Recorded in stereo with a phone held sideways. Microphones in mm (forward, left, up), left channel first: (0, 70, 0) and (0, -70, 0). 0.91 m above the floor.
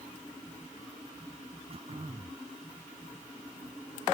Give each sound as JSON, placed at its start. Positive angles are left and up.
{"t": 1.7, "sound": "throat clearing", "side_deg": -45}